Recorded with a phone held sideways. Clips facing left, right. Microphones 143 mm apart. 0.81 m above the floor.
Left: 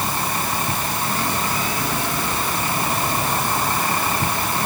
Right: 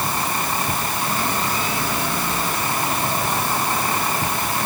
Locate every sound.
Only background noise.